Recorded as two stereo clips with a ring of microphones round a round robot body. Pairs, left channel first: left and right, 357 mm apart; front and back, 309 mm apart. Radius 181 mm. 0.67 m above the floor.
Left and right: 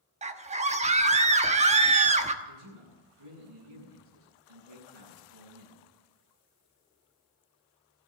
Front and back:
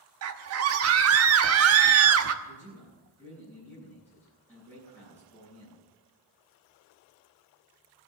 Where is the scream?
155° right, 1.2 m.